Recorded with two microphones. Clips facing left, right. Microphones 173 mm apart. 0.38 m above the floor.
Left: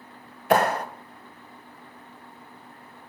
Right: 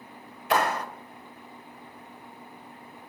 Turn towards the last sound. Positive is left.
turn(degrees=50)  # may be behind; listen again after turning